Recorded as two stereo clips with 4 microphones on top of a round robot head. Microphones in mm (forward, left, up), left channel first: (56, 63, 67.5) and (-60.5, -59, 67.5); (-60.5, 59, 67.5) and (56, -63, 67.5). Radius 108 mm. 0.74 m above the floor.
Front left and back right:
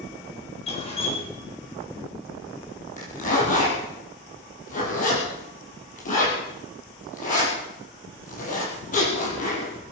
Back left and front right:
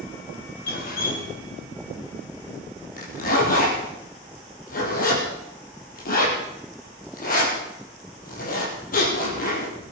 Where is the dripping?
100° left, 4 m.